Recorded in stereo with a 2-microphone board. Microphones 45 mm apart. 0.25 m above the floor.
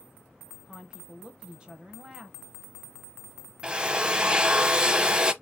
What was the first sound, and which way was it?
A woman speaking, 20° right (ahead or behind).